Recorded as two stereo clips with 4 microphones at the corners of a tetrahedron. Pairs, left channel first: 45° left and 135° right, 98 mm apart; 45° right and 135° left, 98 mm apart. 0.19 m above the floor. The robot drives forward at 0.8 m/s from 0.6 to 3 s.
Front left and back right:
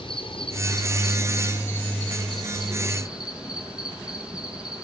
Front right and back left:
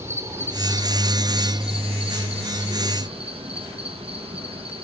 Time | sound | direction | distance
0.0 | an insect | 75° left | 1.2 m